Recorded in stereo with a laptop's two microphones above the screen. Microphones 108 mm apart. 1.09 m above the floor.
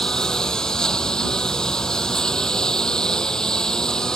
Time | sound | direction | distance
0.0 | a lawn mower | 5° left (ahead or behind) | ?